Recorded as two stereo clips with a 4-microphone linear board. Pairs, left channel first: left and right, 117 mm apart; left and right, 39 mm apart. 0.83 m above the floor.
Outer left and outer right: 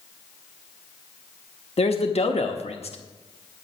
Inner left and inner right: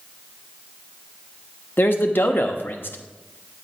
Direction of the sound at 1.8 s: 60° left (ahead or behind).